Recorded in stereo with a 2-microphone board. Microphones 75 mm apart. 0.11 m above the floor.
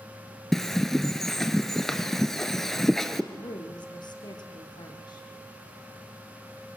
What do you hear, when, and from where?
0.5 s a bird: 5° left (ahead or behind), 1.3 m
3.3 s a woman speaking: 75° left (ahead or behind), 4.5 m